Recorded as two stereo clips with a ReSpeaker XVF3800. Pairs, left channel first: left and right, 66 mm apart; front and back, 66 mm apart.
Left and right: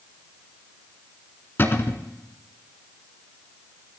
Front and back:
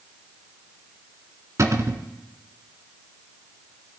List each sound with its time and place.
1.6 s a cupboard door: 145° left, 1.3 m